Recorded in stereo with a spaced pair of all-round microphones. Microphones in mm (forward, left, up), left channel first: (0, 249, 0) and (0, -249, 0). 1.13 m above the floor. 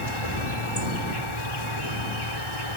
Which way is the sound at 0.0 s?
70° left (ahead or behind).